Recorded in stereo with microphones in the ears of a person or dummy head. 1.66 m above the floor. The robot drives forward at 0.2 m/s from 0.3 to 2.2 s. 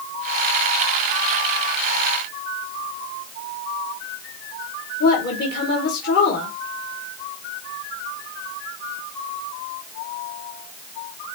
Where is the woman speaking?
65° left (ahead or behind), 2 m.